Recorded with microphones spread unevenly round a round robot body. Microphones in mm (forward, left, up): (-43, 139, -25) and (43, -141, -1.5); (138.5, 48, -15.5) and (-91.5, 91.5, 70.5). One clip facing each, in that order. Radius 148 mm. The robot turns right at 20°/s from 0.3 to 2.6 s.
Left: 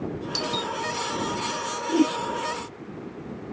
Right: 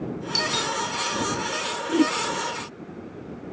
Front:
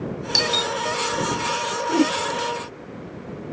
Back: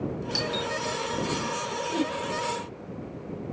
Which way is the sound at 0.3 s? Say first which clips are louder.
Even, front 4 dB; 10° left.